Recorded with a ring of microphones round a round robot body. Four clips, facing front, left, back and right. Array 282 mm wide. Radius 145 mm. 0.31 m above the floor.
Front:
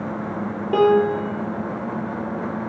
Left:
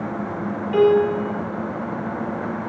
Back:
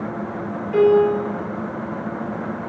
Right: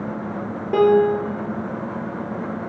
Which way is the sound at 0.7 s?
40° right.